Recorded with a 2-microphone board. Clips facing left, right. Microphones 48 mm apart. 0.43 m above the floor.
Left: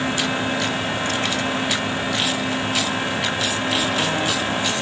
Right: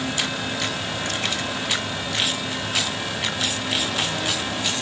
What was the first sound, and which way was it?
Only background noise.